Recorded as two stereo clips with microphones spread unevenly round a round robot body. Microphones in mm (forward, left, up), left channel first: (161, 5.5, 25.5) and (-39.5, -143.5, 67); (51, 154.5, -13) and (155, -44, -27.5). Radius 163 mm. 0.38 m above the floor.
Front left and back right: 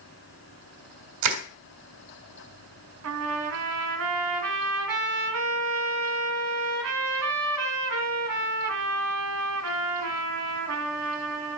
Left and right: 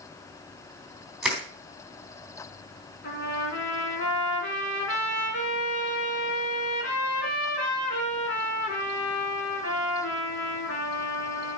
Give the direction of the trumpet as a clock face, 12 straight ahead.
6 o'clock.